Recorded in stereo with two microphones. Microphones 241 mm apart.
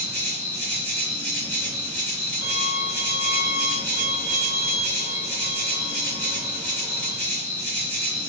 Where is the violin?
10° right (ahead or behind), 1.5 m.